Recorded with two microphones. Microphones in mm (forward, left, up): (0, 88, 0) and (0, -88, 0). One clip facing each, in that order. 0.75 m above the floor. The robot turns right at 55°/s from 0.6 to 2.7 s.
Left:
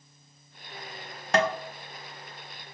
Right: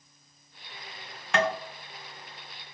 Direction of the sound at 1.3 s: 40° left (ahead or behind).